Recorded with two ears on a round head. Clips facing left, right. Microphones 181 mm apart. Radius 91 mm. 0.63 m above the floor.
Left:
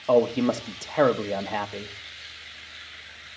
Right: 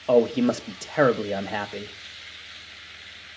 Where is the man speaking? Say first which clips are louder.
Right 1 dB; 5° right (ahead or behind), 0.6 m.